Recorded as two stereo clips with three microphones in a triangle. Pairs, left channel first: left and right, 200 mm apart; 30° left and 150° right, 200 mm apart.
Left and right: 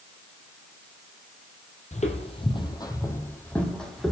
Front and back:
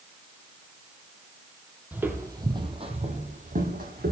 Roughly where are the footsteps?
Behind left.